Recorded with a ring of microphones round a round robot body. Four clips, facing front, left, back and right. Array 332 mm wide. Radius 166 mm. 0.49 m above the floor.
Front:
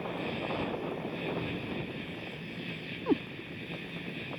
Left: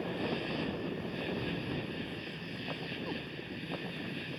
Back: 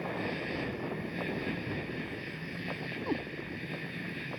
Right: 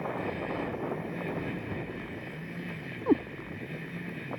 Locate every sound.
0.0 s an insect: 95° left
3.1 s a cat meowing: 70° right